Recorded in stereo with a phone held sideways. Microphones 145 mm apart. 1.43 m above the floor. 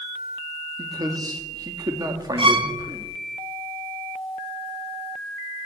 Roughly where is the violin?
Right.